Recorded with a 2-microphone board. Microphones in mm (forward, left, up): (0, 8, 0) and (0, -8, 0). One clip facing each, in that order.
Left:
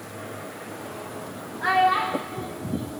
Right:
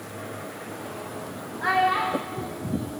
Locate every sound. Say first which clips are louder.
1.6 s a child speaking: left 2 dB; 10° left (ahead or behind), 6.5 m